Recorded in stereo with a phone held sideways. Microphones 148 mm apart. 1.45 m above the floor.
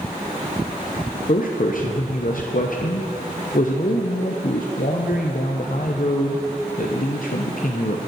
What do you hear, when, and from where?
1.1 s a man speaking: 65° left (ahead or behind), 0.6 m